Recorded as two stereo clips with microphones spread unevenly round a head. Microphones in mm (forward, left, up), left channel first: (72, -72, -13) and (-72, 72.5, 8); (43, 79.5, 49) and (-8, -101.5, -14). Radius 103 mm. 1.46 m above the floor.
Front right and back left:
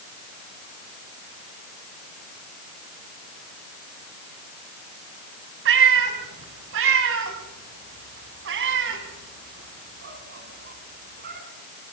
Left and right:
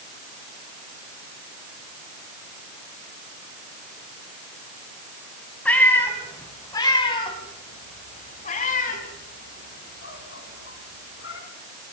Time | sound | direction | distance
5.7 | a cat meowing | 150° left | 3 m